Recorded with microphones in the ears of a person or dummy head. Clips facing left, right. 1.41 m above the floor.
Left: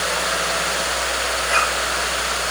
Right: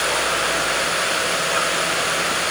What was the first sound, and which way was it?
Only background noise.